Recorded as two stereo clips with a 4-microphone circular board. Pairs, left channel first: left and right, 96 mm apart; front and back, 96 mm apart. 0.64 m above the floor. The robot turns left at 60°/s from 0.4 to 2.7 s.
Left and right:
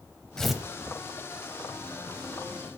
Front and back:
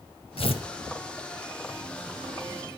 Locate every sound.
0.4 s tearing paper: 5° left, 1.0 m; by 0.6 s 10° right, 1.0 m